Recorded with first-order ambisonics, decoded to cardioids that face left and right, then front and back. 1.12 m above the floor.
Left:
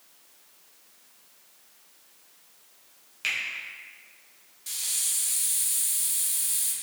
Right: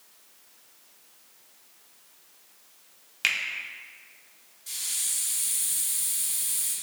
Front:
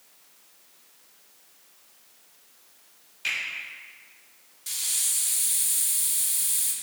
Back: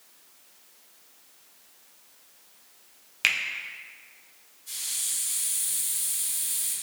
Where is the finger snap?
155° right, 0.5 m.